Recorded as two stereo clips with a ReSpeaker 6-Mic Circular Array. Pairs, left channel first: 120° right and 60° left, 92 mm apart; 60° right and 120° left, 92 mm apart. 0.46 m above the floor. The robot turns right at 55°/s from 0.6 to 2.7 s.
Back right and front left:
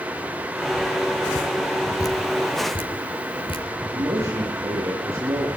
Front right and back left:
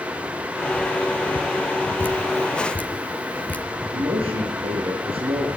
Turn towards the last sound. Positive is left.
turn(degrees=120)